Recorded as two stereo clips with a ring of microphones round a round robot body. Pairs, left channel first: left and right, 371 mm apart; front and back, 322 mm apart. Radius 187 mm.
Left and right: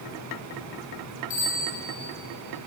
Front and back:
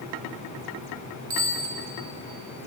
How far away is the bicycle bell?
About 6 m.